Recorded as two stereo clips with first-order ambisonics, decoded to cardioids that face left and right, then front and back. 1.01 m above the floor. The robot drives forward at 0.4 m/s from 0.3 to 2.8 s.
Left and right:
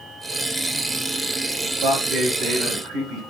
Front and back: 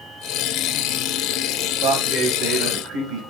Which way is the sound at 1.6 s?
140° right.